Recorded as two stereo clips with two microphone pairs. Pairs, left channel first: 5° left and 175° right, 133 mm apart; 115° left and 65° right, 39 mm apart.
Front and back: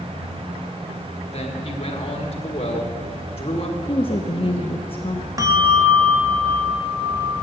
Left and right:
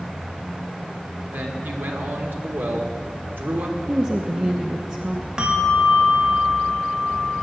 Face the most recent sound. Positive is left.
turn(degrees=-120)